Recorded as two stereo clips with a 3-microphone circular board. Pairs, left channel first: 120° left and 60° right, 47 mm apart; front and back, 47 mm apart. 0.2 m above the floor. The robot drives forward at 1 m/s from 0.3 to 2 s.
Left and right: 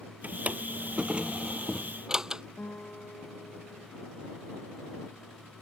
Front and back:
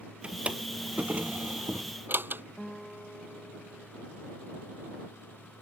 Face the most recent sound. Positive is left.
turn(degrees=80)